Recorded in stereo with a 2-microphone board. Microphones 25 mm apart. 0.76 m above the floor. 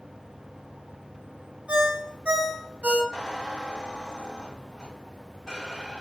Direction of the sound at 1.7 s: 55° right (ahead or behind).